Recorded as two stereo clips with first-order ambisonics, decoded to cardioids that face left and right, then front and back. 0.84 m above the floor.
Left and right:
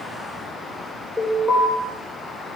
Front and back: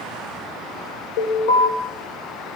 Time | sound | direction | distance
1.2 | an alarm | 5° left | 4 m